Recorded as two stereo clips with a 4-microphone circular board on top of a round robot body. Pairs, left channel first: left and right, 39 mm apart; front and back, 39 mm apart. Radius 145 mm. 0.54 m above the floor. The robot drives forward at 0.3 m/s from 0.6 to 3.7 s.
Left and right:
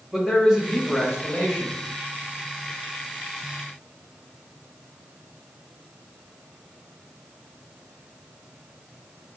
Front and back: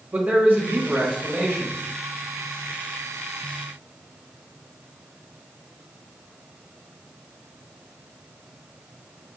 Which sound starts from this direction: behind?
A man speaking, at 0.1 s.